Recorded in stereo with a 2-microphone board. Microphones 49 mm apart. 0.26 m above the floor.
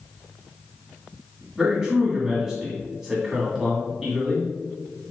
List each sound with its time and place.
1.6 s a man speaking: 10° right (ahead or behind), 1.9 m